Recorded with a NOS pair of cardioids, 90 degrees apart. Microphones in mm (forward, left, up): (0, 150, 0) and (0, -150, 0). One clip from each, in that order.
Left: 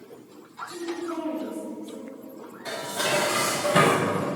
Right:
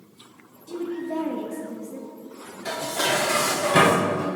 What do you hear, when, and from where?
0.7 s a woman speaking: 55° right, 2 m
2.6 s dishes clattering: 25° right, 3 m